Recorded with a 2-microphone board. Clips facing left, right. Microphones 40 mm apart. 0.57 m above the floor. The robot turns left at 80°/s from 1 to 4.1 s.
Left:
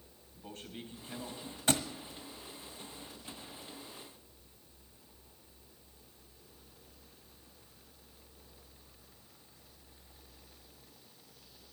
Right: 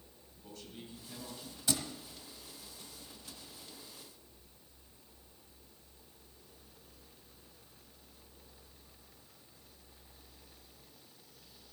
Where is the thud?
55° left (ahead or behind), 1.2 m; by 1.8 s 70° left (ahead or behind), 1.2 m.